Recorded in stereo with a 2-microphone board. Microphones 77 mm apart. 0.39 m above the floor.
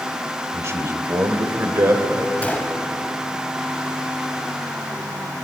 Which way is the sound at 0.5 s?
40° right (ahead or behind).